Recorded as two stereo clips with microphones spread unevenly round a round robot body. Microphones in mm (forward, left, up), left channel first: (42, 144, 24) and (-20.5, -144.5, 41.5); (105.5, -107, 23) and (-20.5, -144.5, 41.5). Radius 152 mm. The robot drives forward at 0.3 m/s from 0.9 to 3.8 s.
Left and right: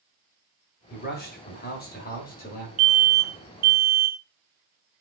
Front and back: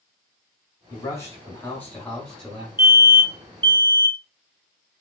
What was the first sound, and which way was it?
A man speaking, 55° left.